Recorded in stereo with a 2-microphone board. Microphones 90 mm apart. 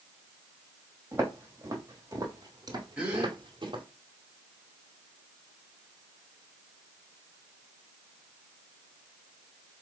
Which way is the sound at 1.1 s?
20° right (ahead or behind).